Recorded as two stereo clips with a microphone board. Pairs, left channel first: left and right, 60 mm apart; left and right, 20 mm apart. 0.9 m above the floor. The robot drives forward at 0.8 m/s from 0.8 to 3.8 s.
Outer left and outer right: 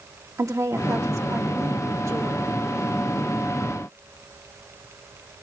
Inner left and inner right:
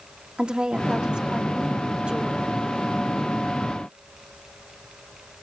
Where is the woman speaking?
65° right (ahead or behind), 2 m.